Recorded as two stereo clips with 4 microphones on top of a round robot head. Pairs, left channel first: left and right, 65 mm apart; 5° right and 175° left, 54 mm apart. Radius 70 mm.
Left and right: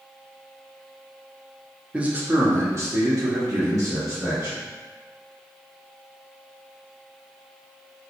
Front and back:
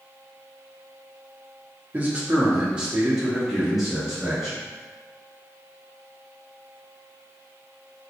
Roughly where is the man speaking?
Behind right.